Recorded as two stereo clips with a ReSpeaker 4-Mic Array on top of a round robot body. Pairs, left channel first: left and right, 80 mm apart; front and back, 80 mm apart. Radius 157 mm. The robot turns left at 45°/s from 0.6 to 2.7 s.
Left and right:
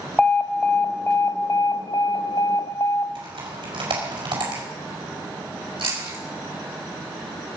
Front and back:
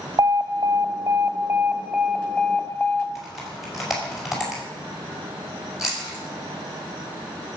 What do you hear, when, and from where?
0.2 s an alarm: 170° left, 1.3 m; by 3.0 s 75° left, 1.3 m
3.1 s typing on a keyboard: 95° right, 5.5 m
5.8 s chewing: 90° right, 7.5 m